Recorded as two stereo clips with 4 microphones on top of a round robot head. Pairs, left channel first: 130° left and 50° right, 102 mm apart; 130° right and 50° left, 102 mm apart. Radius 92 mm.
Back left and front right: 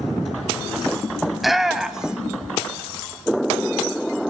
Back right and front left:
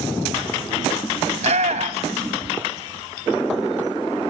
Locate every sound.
1.3 s a shout: 35° left, 2.0 m; by 2.4 s 25° left, 1.2 m